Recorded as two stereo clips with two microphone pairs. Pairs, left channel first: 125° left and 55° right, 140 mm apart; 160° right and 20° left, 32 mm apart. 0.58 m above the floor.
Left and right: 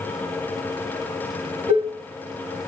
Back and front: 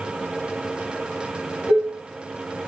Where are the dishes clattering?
100° right, 2.5 m.